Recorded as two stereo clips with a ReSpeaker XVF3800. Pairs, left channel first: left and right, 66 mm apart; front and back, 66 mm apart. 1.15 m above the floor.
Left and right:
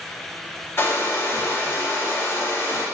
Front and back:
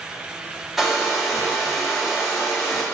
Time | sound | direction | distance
0.8 | a hair dryer | 90° left | 0.7 m